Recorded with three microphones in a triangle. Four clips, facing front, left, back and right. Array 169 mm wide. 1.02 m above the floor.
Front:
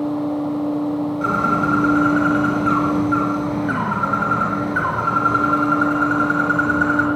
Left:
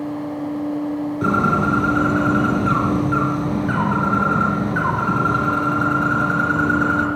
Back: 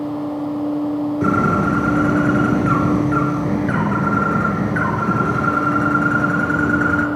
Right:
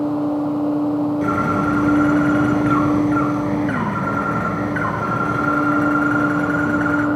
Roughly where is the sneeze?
No sneeze in this recording.